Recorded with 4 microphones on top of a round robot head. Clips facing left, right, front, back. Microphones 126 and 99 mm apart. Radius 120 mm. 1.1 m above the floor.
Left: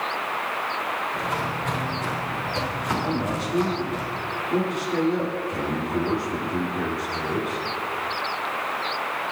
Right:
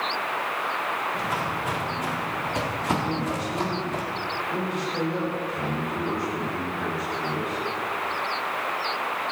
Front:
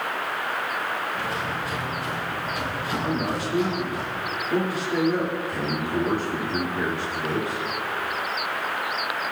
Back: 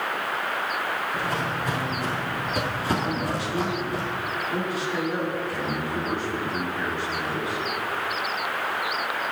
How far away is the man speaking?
About 2 m.